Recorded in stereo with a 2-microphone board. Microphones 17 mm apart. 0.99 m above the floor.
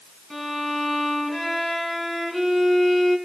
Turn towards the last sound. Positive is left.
turn(degrees=0)  # may be behind; listen again after turning